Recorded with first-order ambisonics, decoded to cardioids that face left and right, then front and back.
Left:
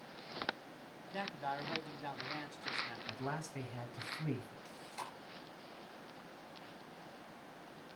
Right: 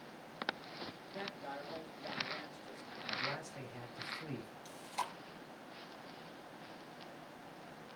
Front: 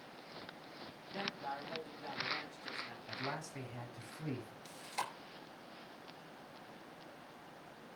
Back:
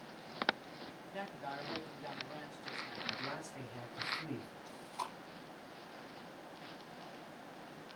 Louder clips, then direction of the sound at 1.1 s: Left 5 dB, front 2 dB; 85° left.